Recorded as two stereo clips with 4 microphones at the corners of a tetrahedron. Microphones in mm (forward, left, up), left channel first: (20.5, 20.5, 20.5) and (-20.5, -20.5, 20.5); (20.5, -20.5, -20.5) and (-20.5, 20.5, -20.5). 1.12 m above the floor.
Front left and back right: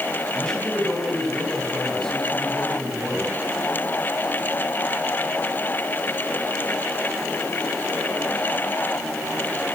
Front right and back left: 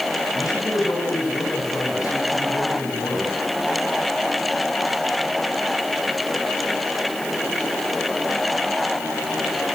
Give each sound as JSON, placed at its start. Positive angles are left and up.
{"t": 0.3, "sound": "a man speaking", "azimuth_deg": -35, "distance_m": 8.0}